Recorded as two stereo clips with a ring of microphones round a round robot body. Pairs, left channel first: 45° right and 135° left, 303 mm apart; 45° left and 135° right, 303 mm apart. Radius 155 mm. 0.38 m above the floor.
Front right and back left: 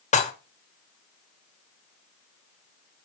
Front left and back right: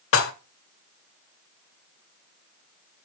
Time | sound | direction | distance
0.1 | dishes clattering | 15° left | 1.0 m